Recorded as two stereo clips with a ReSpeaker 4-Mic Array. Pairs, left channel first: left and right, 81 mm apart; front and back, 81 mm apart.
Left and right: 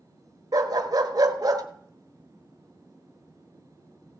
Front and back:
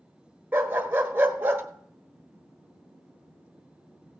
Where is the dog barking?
120° right, 1.2 m.